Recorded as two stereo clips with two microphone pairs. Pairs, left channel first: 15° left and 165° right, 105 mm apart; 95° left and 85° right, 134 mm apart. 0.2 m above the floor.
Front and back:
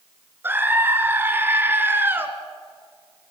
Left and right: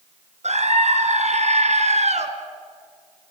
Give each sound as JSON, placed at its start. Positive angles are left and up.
{"t": 0.4, "sound": "a scream", "azimuth_deg": -100, "distance_m": 2.0}